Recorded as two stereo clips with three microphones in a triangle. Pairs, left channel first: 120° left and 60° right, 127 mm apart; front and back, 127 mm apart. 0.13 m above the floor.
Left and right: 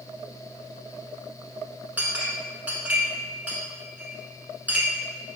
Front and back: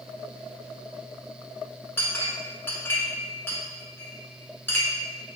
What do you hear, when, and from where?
2.0 s a clink: 10° right, 0.6 m